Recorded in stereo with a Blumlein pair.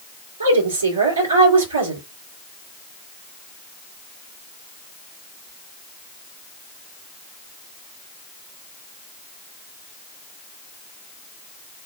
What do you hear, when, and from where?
0.4 s a woman speaking: 70° right, 3.5 m